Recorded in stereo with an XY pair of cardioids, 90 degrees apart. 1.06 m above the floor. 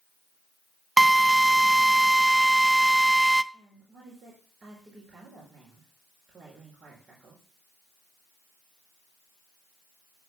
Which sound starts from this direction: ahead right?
A woman speaking, at 3.5 s.